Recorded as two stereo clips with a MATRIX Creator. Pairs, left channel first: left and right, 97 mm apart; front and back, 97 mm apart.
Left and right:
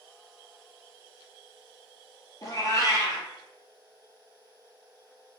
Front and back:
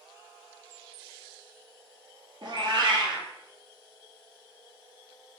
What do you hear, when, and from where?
2.4 s a cat meowing: 145° left, 0.9 m